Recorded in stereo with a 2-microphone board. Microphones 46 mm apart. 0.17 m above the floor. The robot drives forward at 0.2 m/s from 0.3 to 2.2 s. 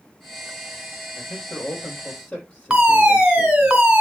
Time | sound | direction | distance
1.2 | a man speaking | 25° left (ahead or behind) | 4 m
2.7 | a fire alarm | 20° right (ahead or behind) | 2.5 m